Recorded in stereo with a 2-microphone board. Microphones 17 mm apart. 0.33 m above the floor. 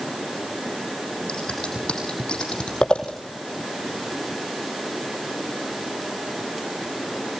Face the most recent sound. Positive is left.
turn(degrees=80)